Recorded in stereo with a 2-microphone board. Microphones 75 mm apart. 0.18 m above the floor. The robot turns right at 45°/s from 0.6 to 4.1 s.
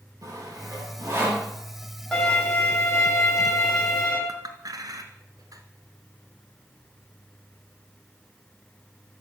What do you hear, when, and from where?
0.2 s sawing: 55° right (ahead or behind), 5 m; by 1.5 s 20° right (ahead or behind), 5 m
2.1 s a violin: 15° left, 6.5 m; by 4.2 s 105° left, 6.5 m
4.3 s a clink: 60° right (ahead or behind), 1.1 m